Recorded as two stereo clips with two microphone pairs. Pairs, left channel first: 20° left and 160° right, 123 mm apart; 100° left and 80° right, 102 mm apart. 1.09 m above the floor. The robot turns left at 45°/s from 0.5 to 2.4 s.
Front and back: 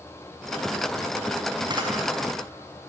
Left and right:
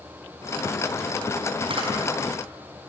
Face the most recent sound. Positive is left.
turn(degrees=-140)